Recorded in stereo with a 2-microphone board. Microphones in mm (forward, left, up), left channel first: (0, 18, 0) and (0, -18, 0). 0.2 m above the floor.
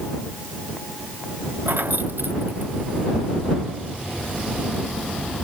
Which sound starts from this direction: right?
Keys jangling, at 1.7 s.